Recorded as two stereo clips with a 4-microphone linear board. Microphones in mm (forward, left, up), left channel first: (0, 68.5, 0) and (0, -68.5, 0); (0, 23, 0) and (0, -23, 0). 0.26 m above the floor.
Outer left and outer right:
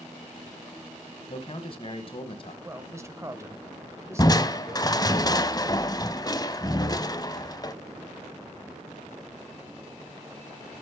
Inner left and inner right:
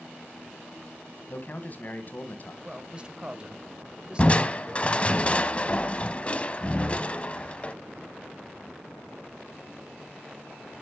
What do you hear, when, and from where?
1.3 s a man speaking: 40° left (ahead or behind), 1.5 m
2.6 s a man speaking: 20° right (ahead or behind), 1.0 m
4.2 s crushing: 30° left (ahead or behind), 0.5 m